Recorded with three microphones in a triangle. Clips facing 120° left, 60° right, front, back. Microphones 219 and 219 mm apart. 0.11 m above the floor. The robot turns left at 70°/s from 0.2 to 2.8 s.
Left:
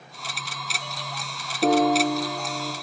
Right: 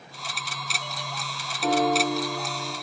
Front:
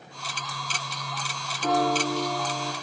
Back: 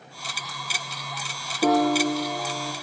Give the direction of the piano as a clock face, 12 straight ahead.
7 o'clock.